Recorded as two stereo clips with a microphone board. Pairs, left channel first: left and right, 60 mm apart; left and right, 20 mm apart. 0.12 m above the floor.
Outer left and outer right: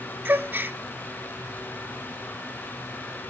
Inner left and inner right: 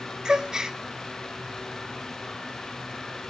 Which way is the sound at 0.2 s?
35° right (ahead or behind).